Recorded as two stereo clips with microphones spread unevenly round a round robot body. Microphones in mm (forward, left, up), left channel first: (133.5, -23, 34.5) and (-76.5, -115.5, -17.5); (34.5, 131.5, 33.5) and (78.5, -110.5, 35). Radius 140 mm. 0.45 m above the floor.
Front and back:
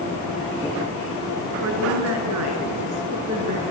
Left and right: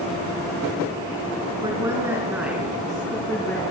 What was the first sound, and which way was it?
A woman speaking, 155° right.